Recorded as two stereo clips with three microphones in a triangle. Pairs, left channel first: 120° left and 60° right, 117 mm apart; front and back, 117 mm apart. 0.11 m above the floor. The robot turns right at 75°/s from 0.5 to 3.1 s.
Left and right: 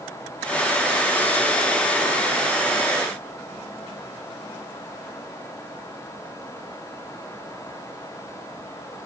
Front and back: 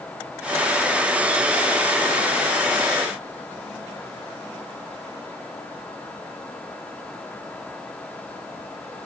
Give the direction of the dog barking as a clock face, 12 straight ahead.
No dog barking in this recording.